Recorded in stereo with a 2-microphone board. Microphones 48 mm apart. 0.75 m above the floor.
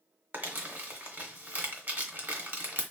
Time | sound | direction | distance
0.3 | crumpling | 45° right (ahead or behind) | 1.1 m